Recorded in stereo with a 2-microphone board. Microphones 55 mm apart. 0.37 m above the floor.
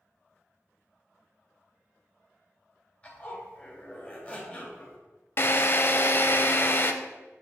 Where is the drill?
45° left (ahead or behind), 0.5 m.